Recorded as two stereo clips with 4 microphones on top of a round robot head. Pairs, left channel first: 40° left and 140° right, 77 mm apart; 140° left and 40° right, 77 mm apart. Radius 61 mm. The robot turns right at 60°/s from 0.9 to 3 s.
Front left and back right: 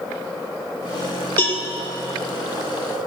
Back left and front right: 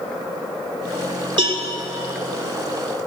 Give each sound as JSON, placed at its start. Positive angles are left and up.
{"t": 1.4, "sound": "a cowbell", "azimuth_deg": -25, "distance_m": 1.8}